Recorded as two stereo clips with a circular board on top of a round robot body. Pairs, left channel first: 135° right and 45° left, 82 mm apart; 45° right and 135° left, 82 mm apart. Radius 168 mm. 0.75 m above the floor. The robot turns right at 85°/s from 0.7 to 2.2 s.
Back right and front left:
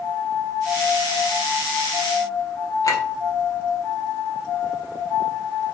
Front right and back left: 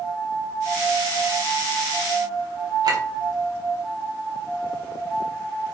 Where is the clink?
175° left, 1.5 m.